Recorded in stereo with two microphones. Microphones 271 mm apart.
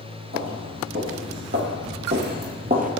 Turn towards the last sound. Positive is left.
turn(degrees=-30)  # may be behind; listen again after turning